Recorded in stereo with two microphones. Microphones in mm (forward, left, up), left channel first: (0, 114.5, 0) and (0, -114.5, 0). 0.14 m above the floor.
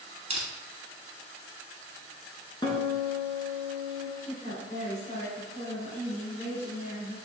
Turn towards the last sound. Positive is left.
turn(degrees=35)  # may be behind; listen again after turning